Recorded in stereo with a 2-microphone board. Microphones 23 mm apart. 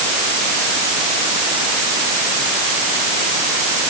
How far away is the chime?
I don't hear a chime.